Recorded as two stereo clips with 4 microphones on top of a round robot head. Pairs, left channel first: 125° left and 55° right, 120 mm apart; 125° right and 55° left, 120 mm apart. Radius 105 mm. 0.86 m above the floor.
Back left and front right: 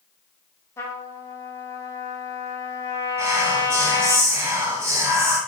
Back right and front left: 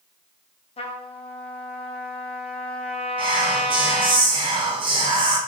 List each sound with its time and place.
0.8 s a trumpet: 165° right, 0.6 m
3.2 s whispering: 10° left, 0.7 m